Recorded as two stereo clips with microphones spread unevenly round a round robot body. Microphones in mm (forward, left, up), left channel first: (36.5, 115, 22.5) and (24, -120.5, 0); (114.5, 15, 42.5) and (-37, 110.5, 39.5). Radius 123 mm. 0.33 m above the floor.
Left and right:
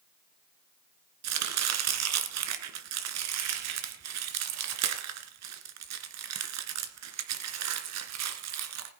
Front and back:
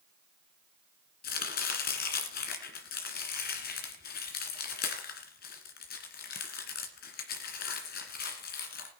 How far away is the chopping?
About 2 m.